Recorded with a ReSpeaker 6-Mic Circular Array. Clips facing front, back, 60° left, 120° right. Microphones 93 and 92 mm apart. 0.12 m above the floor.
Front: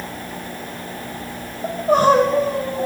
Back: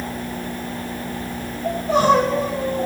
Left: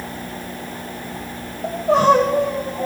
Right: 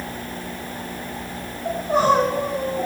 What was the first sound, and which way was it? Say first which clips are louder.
Crying: front 2 dB, left 4 dB; 40° left.